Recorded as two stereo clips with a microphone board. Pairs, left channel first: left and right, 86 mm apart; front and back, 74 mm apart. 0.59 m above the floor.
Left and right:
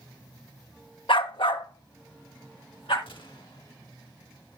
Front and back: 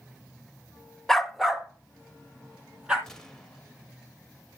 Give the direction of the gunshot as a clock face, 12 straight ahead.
9 o'clock.